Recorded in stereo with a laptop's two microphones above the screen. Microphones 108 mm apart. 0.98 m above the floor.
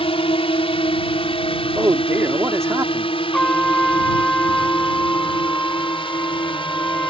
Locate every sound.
0.0 s a drone: 60° left (ahead or behind); by 7.1 s 55° left (ahead or behind)
1.8 s a man speaking: 25° right (ahead or behind)
3.3 s a trumpet: 10° left (ahead or behind)